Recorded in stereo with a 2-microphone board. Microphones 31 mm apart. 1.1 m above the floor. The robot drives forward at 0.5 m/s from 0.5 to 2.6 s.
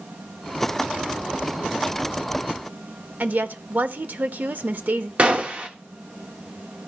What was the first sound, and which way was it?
A woman speaking, 70° right (ahead or behind).